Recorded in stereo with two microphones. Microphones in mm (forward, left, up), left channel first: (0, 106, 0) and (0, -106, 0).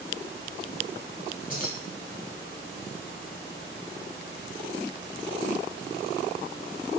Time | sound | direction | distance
1.5 | keys jangling | 40° left (ahead or behind) | 4.5 m